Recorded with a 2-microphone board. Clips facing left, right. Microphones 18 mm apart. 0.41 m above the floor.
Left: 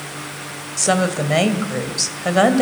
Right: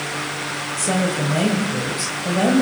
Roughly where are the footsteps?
I don't hear footsteps.